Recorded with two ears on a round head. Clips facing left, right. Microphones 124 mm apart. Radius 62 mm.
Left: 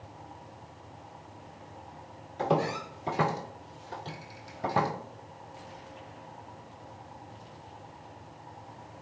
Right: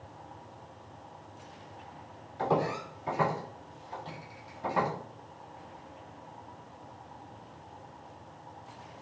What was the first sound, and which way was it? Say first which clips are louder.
Footsteps: left 1 dB; 25° left (ahead or behind).